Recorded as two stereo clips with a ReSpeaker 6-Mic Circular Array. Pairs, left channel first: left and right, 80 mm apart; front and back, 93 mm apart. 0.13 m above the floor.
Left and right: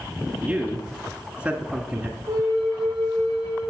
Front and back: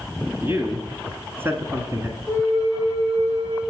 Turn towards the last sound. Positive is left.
turn(degrees=-125)